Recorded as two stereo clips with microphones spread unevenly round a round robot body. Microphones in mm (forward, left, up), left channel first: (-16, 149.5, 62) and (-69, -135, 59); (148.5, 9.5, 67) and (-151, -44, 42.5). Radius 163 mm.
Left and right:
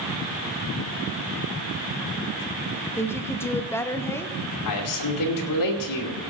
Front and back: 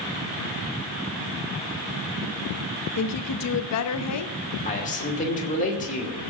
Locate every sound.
3.0 s a woman speaking: straight ahead, 0.8 m
4.7 s a man speaking: 80° left, 2.5 m